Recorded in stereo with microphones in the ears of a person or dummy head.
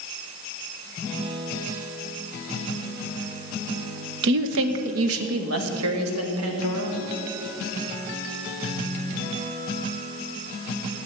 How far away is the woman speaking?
About 0.9 m.